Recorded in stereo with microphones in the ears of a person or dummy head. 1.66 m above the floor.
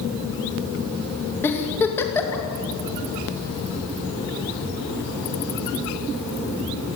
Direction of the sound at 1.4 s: 10° left (ahead or behind).